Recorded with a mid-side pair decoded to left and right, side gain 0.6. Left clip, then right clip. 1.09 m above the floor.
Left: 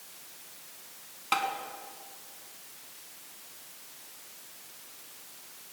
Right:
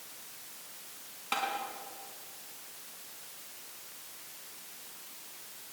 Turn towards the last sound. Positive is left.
turn(degrees=30)